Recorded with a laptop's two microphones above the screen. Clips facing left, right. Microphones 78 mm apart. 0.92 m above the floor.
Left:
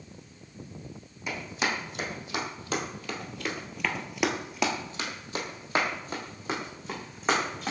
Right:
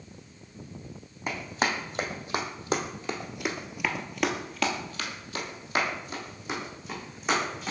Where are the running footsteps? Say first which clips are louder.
Right 2 dB; 40° right (ahead or behind), 2.5 m; by 7.7 s 35° left (ahead or behind), 3 m.